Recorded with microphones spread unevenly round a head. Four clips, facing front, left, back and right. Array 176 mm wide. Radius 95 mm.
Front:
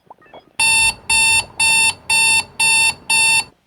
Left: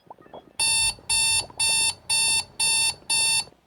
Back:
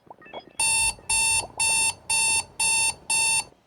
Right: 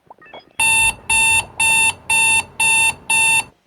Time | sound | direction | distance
0.6 | an alarm clock | 55° right | ?